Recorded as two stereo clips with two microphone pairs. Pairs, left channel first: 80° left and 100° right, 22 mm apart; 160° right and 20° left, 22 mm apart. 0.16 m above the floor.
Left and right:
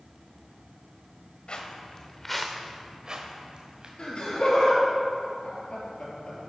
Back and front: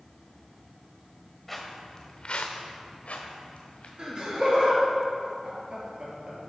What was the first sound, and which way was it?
Footsteps, 110° left.